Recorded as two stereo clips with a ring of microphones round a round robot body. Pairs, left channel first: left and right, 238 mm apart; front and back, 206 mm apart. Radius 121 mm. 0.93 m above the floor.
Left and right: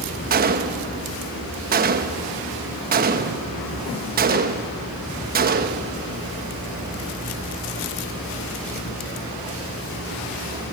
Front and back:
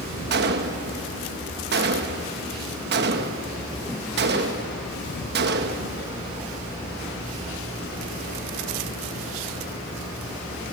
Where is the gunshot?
140° right, 1.0 m.